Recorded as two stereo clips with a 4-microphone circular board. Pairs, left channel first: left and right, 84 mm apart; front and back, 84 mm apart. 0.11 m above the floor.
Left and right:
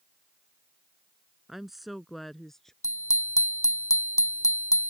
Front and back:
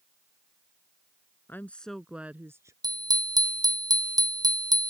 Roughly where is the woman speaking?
Ahead.